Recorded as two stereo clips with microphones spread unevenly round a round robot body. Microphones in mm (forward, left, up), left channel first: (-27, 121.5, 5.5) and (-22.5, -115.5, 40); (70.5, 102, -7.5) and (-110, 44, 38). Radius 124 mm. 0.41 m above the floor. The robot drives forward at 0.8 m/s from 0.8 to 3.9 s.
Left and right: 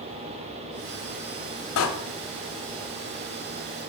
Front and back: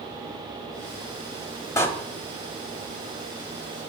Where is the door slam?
90° left, 1.4 m.